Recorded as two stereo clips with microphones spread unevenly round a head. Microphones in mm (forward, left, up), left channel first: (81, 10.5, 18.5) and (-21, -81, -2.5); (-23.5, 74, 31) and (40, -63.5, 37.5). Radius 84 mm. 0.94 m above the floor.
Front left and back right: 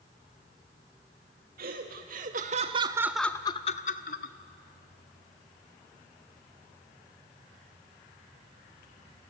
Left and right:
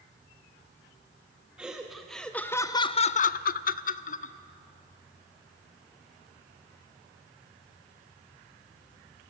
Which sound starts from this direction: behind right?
Laughter, at 1.6 s.